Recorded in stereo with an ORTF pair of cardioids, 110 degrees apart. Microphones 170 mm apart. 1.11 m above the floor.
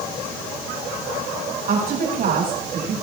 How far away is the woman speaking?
About 8 m.